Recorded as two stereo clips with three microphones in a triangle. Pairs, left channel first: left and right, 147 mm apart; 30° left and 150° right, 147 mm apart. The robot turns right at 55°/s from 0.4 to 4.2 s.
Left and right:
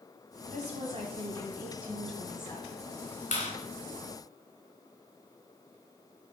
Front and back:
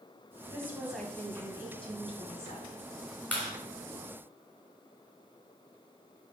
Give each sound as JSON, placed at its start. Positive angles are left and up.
{"t": 0.5, "sound": "a woman speaking", "azimuth_deg": -85, "distance_m": 1.7}
{"t": 3.3, "sound": "a clap", "azimuth_deg": 110, "distance_m": 2.5}